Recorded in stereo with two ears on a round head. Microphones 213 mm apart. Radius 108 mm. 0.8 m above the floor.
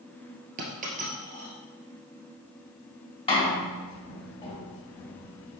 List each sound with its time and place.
0.6 s a dropped coin: 35° right (ahead or behind), 1.8 m
3.3 s a door slam: 25° left (ahead or behind), 2.5 m